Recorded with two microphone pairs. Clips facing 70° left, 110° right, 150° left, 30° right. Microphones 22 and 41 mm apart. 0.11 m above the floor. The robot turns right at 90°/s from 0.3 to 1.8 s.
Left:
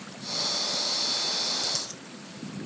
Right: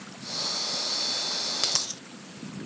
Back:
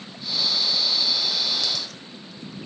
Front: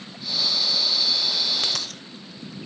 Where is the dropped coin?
70° right; by 2.0 s 55° right.